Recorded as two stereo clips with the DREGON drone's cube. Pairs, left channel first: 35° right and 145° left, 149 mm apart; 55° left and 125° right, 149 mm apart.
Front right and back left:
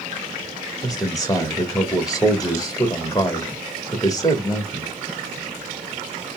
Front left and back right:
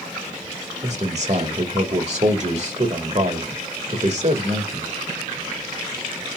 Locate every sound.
0.8 s a man speaking: 95° right, 1.3 m